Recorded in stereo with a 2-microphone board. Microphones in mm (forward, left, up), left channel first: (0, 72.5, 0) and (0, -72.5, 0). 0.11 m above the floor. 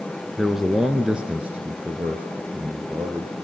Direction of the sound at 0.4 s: Centre (ahead or behind).